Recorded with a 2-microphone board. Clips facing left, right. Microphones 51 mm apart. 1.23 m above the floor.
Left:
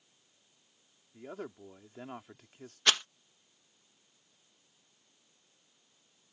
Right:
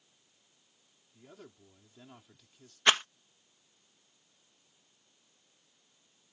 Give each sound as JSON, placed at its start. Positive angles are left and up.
{"t": 1.1, "sound": "a man speaking", "side_deg": 45}
{"t": 2.9, "sound": "a rattle", "side_deg": -25}